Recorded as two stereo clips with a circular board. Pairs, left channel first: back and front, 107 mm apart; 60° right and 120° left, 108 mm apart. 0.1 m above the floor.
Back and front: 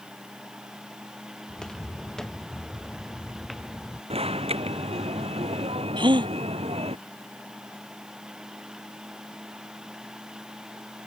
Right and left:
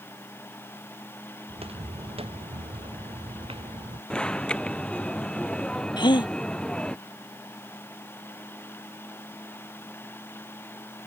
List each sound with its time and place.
1.5 s footsteps: 95° left; by 4.0 s 90° left
4.1 s an alarm: 20° left
6.0 s a gasp: 30° right